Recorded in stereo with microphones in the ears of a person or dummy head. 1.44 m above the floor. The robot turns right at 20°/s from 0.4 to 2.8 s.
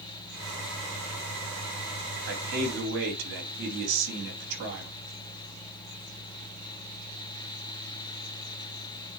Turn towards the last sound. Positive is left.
turn(degrees=-70)  # may be behind; listen again after turning